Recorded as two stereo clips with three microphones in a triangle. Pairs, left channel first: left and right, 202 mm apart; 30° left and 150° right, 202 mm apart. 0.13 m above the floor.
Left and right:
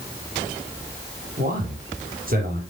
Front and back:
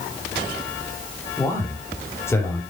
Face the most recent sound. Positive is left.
turn(degrees=-45)